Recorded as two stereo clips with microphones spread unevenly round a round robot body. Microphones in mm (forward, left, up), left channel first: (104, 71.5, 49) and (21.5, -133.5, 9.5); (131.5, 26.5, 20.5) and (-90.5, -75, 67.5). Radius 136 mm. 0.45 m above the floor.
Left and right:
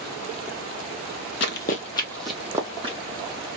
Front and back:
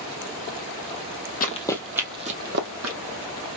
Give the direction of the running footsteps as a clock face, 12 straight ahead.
9 o'clock.